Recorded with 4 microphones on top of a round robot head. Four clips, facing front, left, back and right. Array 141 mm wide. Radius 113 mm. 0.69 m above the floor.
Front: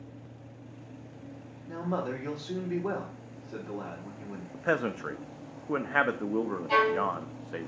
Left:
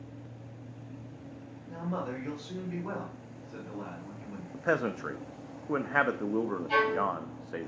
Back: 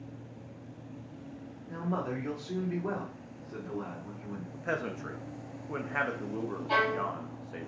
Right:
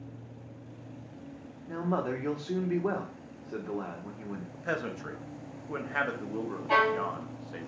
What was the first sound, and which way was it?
A man speaking, 75° right.